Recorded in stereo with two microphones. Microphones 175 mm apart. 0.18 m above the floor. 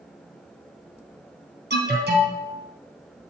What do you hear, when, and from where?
1.7 s an alarm: 75° right (ahead or behind), 3.5 m